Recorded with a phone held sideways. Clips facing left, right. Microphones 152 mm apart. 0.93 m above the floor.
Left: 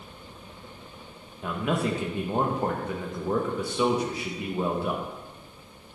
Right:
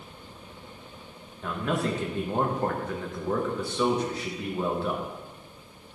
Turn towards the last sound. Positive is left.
turn(degrees=10)  # may be behind; listen again after turning